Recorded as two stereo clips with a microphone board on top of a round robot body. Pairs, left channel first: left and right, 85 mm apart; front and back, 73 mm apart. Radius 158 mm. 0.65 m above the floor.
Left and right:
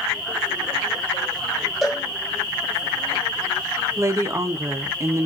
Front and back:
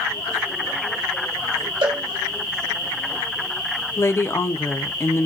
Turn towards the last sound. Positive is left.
turn(degrees=-45)